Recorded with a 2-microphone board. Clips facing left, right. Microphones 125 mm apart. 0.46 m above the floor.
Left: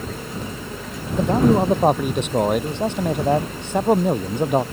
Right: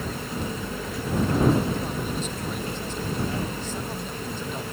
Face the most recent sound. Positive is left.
turn(degrees=65)  # may be behind; listen again after turning